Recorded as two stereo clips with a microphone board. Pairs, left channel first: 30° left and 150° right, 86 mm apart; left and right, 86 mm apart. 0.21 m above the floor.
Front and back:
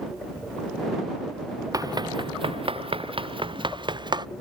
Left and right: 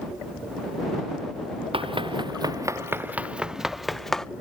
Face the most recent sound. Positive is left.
turn(degrees=175)